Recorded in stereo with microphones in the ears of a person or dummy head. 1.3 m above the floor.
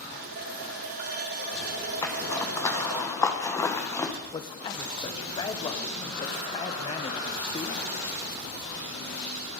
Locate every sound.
0.1 s a running tap: 60° right (ahead or behind), 1.6 m
2.0 s a zipper: 10° left (ahead or behind), 1.1 m
4.3 s a man speaking: 15° left (ahead or behind), 1.1 m